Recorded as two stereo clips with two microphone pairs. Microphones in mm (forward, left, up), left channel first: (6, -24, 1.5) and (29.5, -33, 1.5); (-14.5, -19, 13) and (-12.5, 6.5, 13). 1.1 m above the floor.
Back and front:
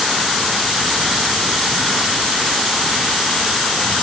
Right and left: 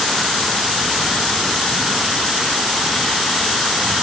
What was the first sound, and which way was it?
Only background noise.